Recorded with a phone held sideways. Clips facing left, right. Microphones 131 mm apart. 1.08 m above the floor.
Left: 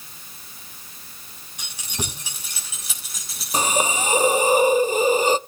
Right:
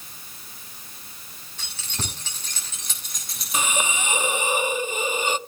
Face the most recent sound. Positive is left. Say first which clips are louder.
# left 5 dB
turn(degrees=35)  # may be behind; listen again after turning